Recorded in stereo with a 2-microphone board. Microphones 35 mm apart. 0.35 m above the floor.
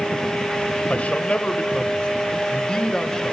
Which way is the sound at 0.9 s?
40° left (ahead or behind).